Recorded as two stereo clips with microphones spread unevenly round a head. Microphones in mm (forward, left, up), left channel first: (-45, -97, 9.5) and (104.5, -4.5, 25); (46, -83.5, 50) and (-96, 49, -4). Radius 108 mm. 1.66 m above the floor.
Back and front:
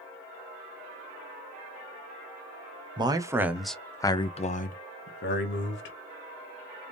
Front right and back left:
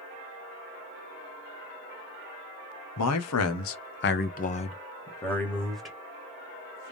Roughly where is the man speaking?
Ahead right.